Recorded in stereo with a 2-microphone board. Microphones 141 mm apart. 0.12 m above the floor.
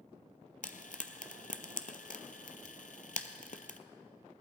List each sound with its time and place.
0.6 s frying: 70° left (ahead or behind), 0.7 m